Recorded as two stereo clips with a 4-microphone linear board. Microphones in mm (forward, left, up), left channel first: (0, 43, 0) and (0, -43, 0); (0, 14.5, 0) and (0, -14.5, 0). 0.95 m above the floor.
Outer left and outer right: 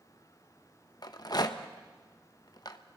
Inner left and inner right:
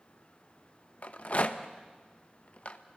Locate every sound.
1.0 s a rattle: 50° left (ahead or behind), 0.9 m